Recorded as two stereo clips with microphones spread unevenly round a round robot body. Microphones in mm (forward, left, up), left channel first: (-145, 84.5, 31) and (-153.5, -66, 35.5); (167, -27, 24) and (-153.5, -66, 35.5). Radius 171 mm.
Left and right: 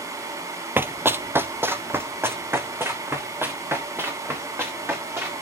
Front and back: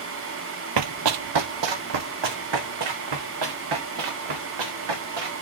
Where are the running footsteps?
170° right, 0.6 m.